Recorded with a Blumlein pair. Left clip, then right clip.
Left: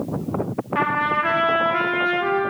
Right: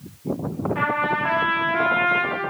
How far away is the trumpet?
About 1.8 m.